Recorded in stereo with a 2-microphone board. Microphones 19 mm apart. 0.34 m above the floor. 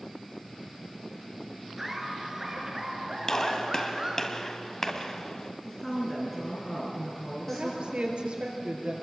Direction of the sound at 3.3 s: 30° left (ahead or behind).